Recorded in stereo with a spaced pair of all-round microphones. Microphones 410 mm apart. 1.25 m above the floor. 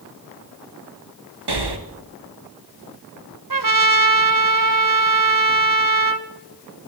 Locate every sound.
1.5 s breathing: 75° right (ahead or behind), 1.2 m
3.5 s a trumpet: 55° right (ahead or behind), 1.0 m